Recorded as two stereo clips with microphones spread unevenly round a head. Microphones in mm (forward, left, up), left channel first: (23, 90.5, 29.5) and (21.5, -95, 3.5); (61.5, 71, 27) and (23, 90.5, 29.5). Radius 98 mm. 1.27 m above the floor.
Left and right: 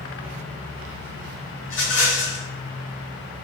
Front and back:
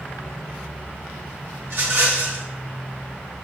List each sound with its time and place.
1.6 s a rattle: 125° left, 1.4 m